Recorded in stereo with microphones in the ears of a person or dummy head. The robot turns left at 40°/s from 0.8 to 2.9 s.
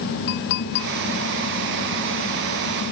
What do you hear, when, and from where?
0.3 s a clink: 65° left (ahead or behind)